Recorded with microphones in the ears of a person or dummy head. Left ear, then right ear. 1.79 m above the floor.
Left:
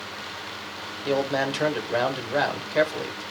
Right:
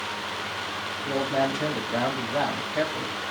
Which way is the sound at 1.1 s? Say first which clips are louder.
Left 1 dB; 60° left (ahead or behind).